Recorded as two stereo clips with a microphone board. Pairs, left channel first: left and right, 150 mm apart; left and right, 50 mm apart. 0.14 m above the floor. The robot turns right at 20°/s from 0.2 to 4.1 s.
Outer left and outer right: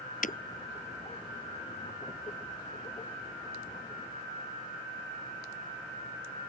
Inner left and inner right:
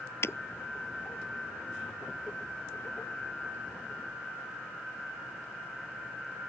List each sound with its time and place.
0.2 s breaking glass: 60° left (ahead or behind); by 0.4 s 65° left (ahead or behind)